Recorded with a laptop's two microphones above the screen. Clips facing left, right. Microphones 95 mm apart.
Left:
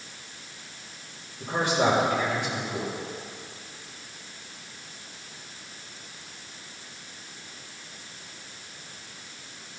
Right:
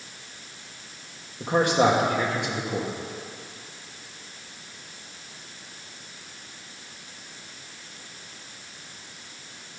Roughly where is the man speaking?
Right.